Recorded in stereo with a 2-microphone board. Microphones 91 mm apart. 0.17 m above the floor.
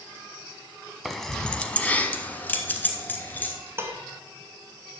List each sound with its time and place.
1.1 s keys jangling: centre (ahead or behind), 0.7 m; by 3.5 s 20° left (ahead or behind), 1.7 m
3.8 s dishes clattering: 30° right (ahead or behind), 1.3 m